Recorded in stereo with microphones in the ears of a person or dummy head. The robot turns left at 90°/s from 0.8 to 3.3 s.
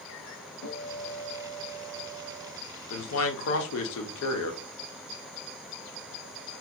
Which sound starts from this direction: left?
A man speaking, at 2.9 s.